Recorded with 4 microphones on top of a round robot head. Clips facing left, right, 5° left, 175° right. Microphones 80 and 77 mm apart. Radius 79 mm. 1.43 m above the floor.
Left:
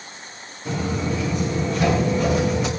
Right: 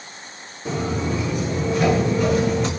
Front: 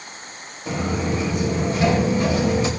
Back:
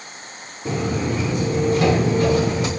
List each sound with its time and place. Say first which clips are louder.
0.7 s footsteps: right 1 dB, back 1 dB; 155° right, 4 m; by 2.7 s 175° left, 4.5 m